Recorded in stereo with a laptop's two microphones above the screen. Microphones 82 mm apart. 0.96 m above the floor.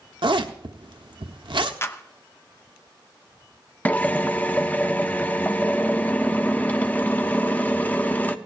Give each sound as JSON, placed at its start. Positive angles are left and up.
{"t": 0.2, "sound": "a zipper", "side_deg": -75, "distance_m": 1.0}
{"t": 1.8, "sound": "a clap", "side_deg": 30, "distance_m": 0.8}
{"t": 3.9, "sound": "a drill", "side_deg": 20, "distance_m": 0.7}